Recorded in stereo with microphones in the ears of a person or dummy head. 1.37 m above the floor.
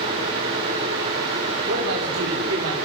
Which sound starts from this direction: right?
A man speaking, at 1.6 s.